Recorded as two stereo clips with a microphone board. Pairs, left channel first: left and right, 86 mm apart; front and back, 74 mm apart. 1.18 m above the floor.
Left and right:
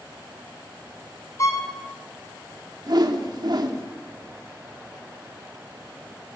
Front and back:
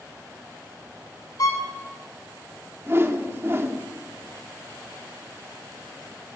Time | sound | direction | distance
1.4 | a violin | 35° left | 4 m
2.9 | a whoosh | 125° right | 3 m